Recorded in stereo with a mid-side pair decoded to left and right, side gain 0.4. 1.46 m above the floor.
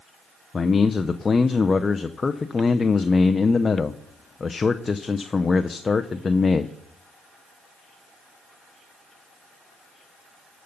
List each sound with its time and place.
0.5 s a man speaking: 35° left, 0.6 m